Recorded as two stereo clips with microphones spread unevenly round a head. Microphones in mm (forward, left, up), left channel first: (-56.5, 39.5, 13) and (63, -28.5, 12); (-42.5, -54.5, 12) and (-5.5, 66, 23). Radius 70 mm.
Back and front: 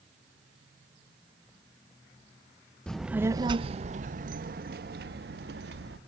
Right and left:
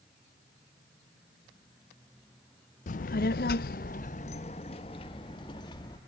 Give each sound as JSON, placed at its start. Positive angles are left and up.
{"t": 2.9, "sound": "a child speaking", "azimuth_deg": -125, "distance_m": 0.6}